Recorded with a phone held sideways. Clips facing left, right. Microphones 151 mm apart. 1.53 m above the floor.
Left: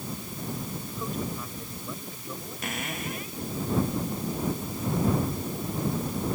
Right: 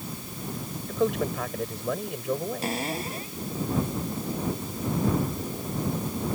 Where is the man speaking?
90° right.